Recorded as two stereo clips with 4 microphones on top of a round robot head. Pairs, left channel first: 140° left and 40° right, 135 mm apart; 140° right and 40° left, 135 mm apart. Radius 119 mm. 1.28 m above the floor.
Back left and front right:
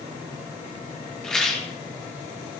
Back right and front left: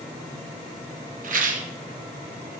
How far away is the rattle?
About 1.9 m.